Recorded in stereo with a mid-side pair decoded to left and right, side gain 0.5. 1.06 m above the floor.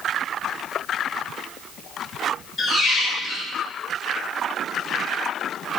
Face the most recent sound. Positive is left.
turn(degrees=45)